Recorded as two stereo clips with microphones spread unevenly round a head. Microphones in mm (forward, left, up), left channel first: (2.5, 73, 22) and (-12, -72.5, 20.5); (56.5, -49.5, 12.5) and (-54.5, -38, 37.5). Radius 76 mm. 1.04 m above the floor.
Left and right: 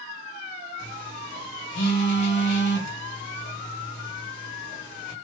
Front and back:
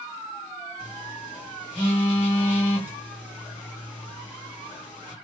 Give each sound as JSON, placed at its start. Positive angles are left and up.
{"t": 0.8, "sound": "a phone buzzing", "azimuth_deg": 55, "distance_m": 1.0}